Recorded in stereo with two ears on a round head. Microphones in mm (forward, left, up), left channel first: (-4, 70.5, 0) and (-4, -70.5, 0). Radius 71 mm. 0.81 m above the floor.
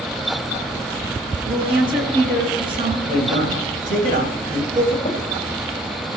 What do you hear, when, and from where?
1.4 s a woman speaking: 35° right (ahead or behind), 8 m
3.1 s a man speaking: 55° right (ahead or behind), 10 m
5.0 s tapping: 35° left (ahead or behind), 6.5 m